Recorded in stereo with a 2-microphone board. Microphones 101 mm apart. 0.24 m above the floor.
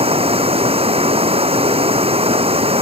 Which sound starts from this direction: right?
Running water, at 0.0 s.